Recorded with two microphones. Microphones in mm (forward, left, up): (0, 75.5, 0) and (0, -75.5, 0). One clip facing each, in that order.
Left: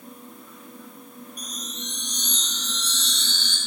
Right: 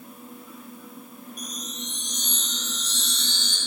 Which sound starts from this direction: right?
A chime, at 1.4 s.